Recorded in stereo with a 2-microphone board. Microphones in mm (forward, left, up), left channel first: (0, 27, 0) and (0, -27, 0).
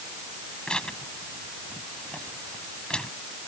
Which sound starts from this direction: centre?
Tearing paper, at 0.7 s.